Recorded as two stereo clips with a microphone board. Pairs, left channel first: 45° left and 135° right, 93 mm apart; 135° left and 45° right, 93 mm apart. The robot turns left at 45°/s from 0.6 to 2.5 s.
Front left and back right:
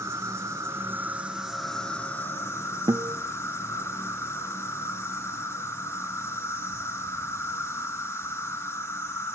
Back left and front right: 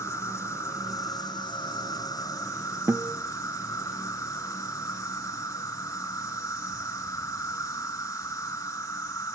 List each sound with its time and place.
0.0 s an insect: straight behind, 2.0 m; by 9.3 s 95° left, 2.0 m
2.9 s a guitar: 105° right, 0.5 m